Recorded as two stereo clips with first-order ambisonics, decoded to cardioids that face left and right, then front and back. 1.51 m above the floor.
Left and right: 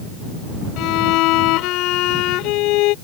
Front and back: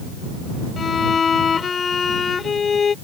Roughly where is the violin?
Ahead left.